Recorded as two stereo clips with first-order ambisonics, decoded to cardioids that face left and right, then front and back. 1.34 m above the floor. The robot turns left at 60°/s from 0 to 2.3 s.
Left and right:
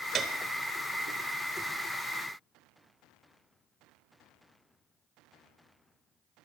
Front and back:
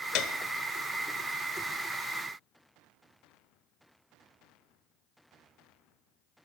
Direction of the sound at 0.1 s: 20° right.